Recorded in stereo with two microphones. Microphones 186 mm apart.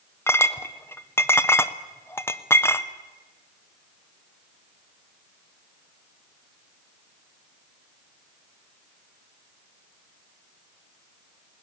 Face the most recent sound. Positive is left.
turn(degrees=15)  # may be behind; listen again after turning